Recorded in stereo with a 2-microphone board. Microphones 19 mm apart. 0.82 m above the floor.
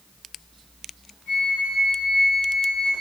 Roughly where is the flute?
Left.